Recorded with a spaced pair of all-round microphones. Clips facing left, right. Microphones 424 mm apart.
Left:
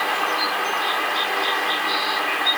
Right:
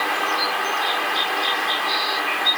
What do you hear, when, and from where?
Only background noise.